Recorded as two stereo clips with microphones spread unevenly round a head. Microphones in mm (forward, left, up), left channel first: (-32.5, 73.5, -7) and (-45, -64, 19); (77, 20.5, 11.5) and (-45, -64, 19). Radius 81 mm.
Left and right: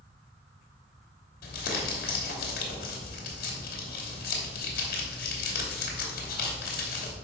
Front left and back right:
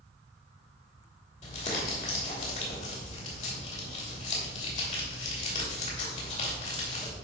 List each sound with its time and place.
1.4 s crumpling: 85° left, 3 m